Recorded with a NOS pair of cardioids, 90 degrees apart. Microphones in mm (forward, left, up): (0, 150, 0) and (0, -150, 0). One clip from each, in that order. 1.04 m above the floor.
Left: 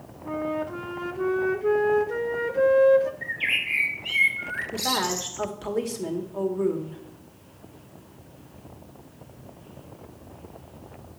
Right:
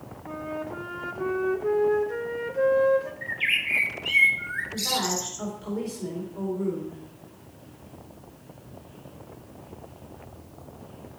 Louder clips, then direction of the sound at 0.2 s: Left 5 dB; 20° left.